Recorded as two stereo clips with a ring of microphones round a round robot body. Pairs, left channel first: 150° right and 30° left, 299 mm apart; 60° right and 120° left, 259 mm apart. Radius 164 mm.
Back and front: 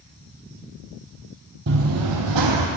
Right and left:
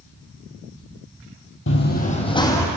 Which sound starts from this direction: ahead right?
Running footsteps, at 1.7 s.